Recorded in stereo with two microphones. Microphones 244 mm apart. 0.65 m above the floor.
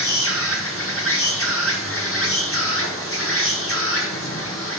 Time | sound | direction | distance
0.0 | an insect | 60° left (ahead or behind) | 1.1 m